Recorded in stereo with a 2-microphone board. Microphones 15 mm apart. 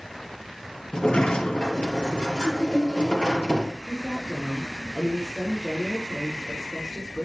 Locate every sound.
0.9 s a sliding door: 80° left, 3.5 m
3.9 s a woman speaking: 15° left (ahead or behind), 5.5 m